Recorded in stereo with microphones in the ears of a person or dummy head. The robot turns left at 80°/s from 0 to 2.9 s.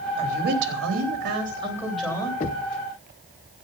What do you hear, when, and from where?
0.2 s a woman speaking: 35° right, 3.5 m; by 2.3 s 155° left, 3.5 m
2.4 s knocking: 30° left (ahead or behind), 0.7 m; by 2.8 s 35° left (ahead or behind), 0.7 m